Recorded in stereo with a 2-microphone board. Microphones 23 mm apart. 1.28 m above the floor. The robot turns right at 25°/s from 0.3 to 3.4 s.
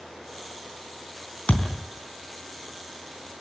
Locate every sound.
1.5 s a thud: 65° left (ahead or behind), 3.5 m; by 1.8 s 60° left (ahead or behind), 3.5 m